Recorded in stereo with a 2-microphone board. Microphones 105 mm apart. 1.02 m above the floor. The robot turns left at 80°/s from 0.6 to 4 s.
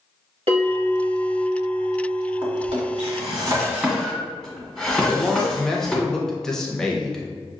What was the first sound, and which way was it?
A bell, 110° right.